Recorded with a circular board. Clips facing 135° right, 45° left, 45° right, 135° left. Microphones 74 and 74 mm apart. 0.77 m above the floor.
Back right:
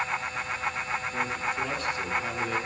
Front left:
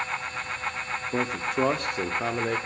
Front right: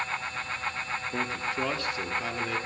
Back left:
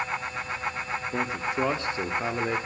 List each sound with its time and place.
1.1 s a man speaking: 55° left, 1.3 m; by 2.6 s 80° left, 1.9 m